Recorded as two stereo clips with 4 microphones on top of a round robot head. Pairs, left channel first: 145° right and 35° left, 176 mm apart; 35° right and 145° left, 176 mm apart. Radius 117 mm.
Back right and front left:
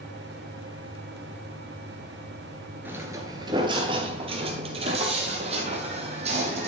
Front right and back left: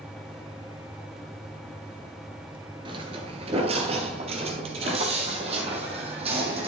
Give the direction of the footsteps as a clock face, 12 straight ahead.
8 o'clock.